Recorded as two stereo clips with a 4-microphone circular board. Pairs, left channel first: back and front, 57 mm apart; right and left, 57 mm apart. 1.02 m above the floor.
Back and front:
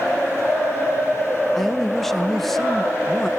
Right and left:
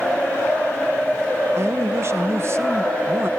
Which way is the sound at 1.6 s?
95° left.